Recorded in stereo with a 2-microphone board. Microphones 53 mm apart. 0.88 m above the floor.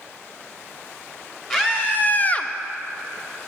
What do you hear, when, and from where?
1.5 s a scream: 30° left (ahead or behind), 1.3 m; by 2.5 s 15° left (ahead or behind), 0.6 m